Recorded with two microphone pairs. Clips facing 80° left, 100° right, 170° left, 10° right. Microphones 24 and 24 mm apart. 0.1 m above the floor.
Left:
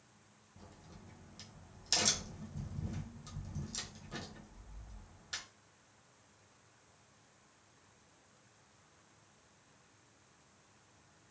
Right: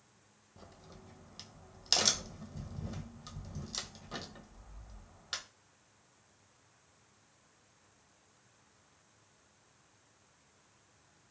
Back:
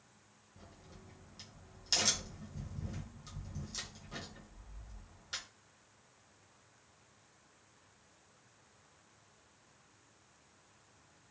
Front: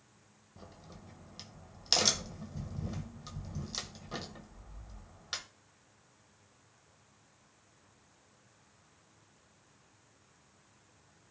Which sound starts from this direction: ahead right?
A crack, at 0.6 s.